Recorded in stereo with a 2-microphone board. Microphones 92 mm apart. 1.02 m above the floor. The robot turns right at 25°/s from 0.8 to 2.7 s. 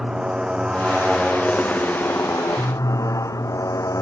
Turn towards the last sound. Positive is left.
turn(degrees=35)